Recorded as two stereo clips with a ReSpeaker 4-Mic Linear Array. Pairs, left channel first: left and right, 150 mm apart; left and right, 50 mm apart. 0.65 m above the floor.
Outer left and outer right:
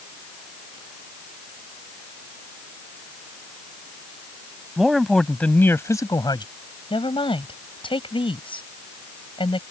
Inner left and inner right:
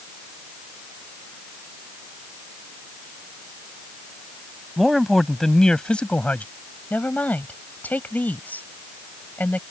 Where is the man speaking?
5° right (ahead or behind); by 6.5 s 30° left (ahead or behind).